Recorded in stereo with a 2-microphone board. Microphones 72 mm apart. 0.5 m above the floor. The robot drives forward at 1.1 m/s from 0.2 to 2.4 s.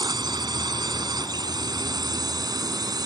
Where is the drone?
75° right (ahead or behind); by 3.1 s 65° right (ahead or behind).